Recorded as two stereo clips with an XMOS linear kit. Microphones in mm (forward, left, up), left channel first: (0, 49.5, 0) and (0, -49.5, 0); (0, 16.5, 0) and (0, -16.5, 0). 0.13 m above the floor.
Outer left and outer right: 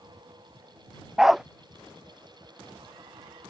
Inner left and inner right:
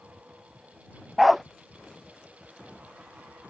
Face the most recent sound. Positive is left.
turn(degrees=-5)  # may be behind; listen again after turning